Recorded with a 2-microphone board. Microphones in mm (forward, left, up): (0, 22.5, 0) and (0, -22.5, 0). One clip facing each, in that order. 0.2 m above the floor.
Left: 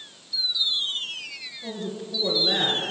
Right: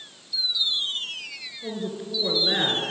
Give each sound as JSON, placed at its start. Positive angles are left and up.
{"t": 1.6, "sound": "a man speaking", "side_deg": -15, "distance_m": 2.0}